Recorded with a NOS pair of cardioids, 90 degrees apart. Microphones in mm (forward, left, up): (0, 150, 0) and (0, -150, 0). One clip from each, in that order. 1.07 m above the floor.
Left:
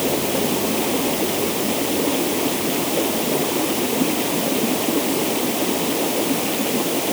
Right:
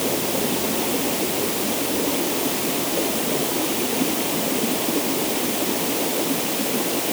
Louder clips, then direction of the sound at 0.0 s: Left 2 dB; 20° left.